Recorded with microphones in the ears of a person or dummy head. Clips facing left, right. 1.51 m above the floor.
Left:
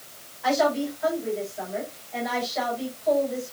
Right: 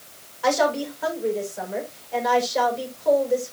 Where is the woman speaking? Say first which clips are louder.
Right 1 dB; 85° right, 6.5 m.